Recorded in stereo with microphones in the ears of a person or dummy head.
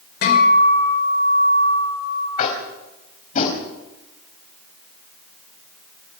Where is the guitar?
60° left (ahead or behind), 6 m.